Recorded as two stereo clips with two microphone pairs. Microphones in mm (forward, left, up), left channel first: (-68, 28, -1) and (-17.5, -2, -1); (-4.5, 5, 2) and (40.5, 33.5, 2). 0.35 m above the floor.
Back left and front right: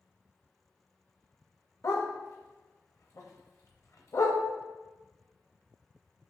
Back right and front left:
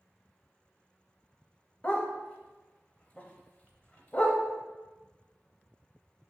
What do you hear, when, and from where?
1.8 s a dog barking: 150° left, 0.6 m